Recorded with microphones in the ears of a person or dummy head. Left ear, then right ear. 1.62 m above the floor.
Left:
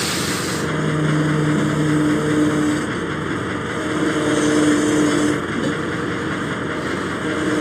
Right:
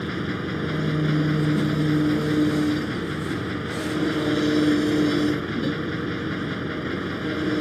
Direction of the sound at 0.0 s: 30° left (ahead or behind).